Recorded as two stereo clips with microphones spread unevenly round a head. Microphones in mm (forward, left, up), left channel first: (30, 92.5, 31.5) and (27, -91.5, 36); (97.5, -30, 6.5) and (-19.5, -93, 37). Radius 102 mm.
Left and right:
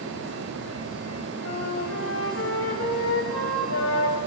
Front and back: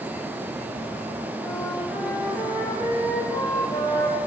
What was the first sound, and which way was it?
A flute, 115° left.